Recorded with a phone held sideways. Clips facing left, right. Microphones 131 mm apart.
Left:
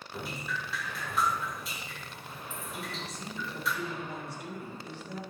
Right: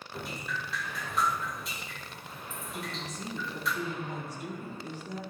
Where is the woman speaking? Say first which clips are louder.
Right 3 dB; 50° right (ahead or behind), 4 m.